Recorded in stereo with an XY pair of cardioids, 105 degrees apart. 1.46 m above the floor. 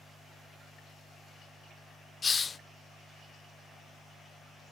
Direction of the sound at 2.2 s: 30° left.